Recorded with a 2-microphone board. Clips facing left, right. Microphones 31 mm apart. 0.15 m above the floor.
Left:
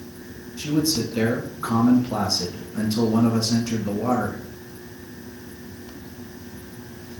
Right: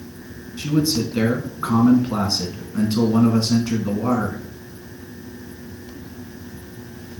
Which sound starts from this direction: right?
A man speaking, at 0.6 s.